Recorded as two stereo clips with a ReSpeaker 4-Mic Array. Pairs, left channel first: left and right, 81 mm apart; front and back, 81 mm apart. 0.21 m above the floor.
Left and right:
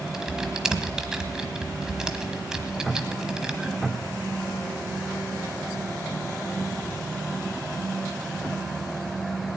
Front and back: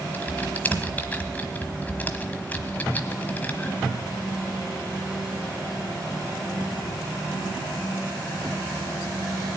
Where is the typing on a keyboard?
20° right, 1.2 m.